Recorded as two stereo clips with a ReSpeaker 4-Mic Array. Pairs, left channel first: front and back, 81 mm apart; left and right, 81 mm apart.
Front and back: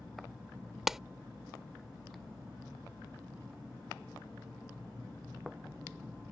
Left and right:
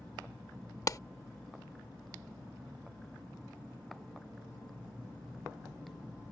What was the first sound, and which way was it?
A clap, 100° left.